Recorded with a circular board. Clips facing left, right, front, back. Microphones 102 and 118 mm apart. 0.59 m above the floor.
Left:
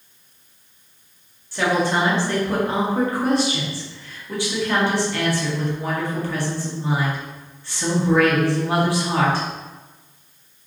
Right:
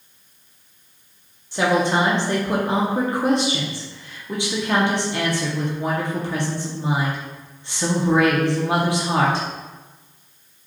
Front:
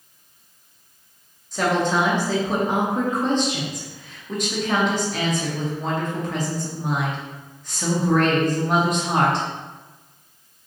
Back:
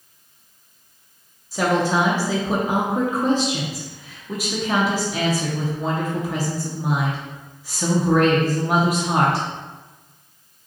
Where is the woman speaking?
110° right, 0.6 m.